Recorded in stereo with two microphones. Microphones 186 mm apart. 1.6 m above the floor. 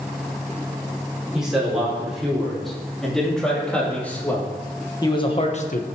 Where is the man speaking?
5° right (ahead or behind), 5 m; by 5.8 s 50° left (ahead or behind), 1.0 m.